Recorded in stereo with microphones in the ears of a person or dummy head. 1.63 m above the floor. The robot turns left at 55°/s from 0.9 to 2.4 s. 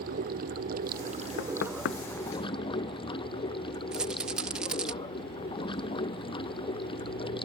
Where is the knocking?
60° left (ahead or behind); by 2.0 s 75° left (ahead or behind).